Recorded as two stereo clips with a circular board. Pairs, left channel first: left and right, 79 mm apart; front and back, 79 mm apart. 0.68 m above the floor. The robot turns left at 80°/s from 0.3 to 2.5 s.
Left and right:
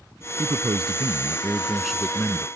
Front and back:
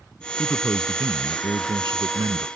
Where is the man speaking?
60° right; by 2.5 s 135° left.